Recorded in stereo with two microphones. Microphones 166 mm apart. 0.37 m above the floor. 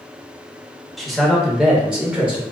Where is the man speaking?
Centre (ahead or behind), 0.9 m; by 2.4 s 5° right (ahead or behind), 0.9 m.